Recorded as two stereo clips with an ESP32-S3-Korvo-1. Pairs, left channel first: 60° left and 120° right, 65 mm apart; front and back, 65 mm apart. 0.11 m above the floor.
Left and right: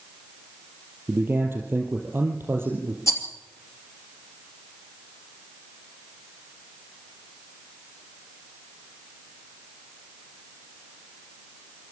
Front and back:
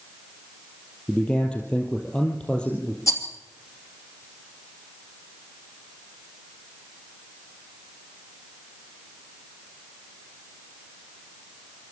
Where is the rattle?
30° left, 2.5 m.